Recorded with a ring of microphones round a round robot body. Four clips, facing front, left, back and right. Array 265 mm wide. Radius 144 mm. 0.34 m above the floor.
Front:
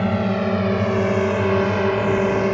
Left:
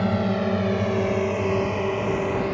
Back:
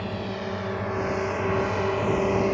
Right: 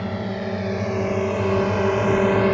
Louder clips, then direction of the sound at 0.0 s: Left 4 dB, front 10 dB; 25° left.